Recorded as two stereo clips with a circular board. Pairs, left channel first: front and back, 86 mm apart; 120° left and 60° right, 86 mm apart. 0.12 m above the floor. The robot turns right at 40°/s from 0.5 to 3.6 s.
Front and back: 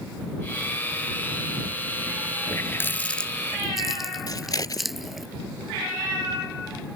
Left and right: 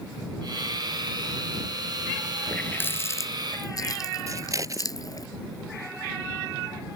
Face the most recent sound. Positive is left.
turn(degrees=-25)